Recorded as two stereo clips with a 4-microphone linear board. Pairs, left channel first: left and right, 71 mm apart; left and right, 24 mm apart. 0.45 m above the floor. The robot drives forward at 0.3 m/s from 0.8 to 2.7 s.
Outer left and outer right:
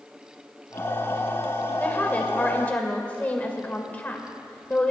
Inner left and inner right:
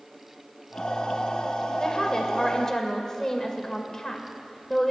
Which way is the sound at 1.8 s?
20° left (ahead or behind).